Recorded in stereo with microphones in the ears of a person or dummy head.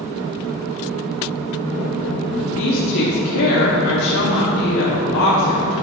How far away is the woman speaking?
About 2 m.